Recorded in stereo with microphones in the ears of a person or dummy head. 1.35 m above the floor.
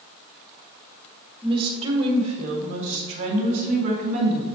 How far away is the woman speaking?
About 1.3 m.